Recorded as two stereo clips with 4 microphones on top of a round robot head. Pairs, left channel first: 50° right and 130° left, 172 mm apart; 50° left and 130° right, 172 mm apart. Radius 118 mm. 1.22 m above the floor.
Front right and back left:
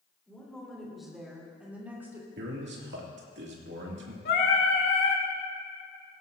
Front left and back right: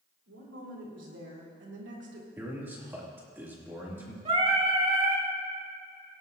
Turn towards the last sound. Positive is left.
turn(degrees=-80)